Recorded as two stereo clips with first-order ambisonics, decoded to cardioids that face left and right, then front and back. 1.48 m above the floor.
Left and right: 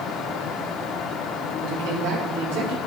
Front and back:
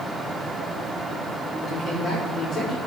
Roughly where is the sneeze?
I don't hear a sneeze.